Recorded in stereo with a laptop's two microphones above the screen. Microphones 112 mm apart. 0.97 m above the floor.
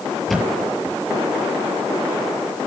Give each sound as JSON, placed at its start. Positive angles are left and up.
{"t": 0.3, "sound": "a thud", "side_deg": 0, "distance_m": 4.5}